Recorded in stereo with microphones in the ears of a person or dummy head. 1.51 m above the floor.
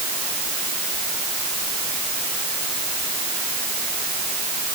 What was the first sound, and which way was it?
Only background noise.